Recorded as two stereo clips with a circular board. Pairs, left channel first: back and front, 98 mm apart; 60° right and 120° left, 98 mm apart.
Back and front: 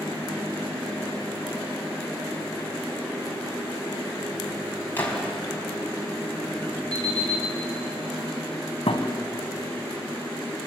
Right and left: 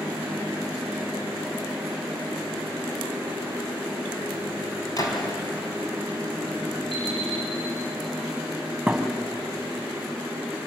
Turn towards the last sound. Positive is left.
turn(degrees=-155)